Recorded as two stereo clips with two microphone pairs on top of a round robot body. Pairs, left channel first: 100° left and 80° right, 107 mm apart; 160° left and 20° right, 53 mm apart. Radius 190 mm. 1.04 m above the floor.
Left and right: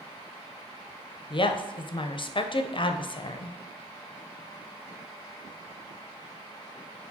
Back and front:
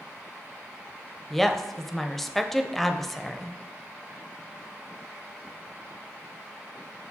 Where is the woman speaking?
75° left, 0.6 m.